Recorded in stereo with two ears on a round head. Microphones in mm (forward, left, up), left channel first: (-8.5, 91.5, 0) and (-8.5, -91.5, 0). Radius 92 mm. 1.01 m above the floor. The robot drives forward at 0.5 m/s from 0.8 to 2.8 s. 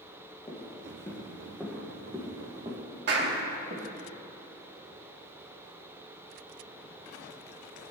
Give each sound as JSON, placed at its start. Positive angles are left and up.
{"t": 0.5, "sound": "footsteps", "side_deg": 25, "distance_m": 2.5}
{"t": 3.1, "sound": "a clap", "side_deg": -60, "distance_m": 1.4}